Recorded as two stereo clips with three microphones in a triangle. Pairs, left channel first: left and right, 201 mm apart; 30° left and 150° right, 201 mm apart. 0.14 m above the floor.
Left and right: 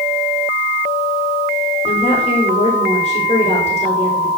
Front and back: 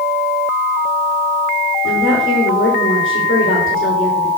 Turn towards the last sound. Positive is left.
turn(degrees=30)